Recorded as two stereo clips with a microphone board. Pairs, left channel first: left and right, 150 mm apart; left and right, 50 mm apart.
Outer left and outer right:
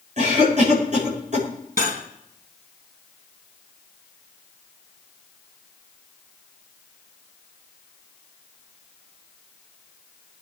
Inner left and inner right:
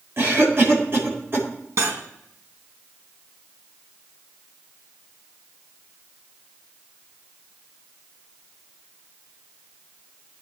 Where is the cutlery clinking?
70° right (ahead or behind), 2.5 m.